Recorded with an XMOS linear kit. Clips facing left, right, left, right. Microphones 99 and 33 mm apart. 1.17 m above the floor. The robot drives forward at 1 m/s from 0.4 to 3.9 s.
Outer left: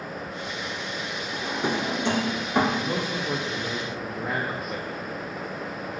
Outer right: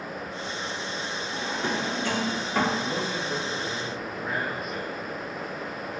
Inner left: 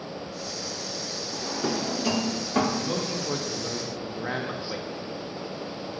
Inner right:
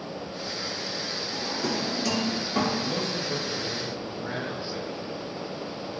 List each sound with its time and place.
1.3 s a drawer: 15° left (ahead or behind), 1.1 m
2.8 s a man speaking: 55° left (ahead or behind), 1.9 m; by 4.9 s 85° left, 1.6 m